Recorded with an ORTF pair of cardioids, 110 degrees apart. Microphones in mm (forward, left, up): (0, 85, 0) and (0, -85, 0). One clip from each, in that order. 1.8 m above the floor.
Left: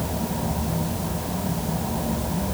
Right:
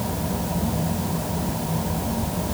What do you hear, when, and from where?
Only background noise.